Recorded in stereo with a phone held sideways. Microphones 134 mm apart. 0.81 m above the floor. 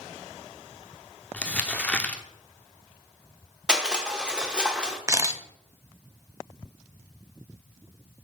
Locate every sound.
1.3 s crumpling: 10° left (ahead or behind), 0.6 m
3.7 s crushing: 5° right (ahead or behind), 0.9 m
5.1 s a camera shutter: 25° right (ahead or behind), 0.6 m